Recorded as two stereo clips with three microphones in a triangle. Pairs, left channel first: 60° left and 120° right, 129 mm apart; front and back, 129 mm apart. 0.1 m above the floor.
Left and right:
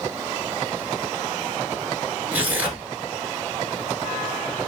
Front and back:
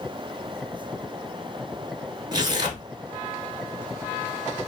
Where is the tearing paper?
175° left, 0.8 m.